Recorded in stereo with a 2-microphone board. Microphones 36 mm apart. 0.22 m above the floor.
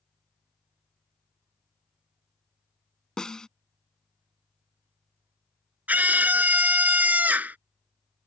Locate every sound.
3.2 s a snare drum: 20° left (ahead or behind)
5.9 s a scream: 50° right (ahead or behind)